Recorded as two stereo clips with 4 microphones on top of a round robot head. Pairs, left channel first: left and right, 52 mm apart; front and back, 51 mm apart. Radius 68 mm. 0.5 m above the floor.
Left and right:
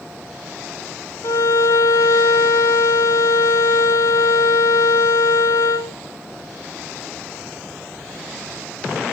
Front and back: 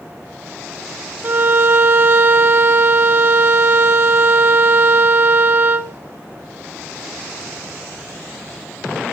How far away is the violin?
About 0.7 m.